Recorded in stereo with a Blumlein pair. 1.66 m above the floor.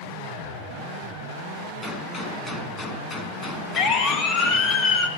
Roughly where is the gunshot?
Ahead.